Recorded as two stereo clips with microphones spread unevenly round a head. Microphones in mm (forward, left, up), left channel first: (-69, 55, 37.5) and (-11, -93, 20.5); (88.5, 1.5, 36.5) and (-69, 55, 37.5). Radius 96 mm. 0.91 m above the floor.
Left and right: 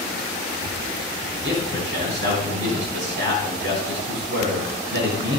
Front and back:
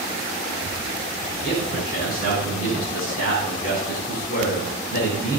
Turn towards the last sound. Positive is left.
turn(degrees=-65)